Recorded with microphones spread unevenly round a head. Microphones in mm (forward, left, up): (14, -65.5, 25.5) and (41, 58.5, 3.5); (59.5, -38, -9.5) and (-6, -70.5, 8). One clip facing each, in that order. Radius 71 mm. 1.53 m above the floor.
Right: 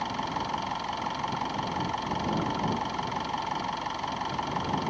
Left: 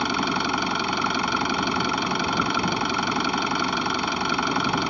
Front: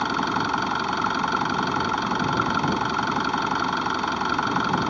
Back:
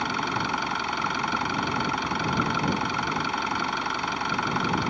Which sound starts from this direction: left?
An engine running, at 0.0 s.